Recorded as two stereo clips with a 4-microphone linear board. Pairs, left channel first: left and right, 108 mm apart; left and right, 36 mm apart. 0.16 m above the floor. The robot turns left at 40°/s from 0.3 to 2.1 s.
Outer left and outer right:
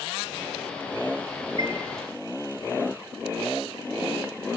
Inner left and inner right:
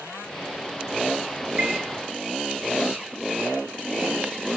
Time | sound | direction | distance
1.6 | a chime | 45° right (ahead or behind) | 5 m